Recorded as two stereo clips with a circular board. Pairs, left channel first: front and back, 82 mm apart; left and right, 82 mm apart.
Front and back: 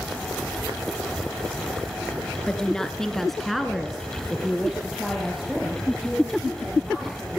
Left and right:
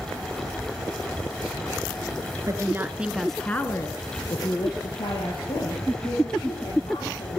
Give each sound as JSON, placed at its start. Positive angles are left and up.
{"t": 2.5, "sound": "a woman speaking", "azimuth_deg": -75, "distance_m": 1.5}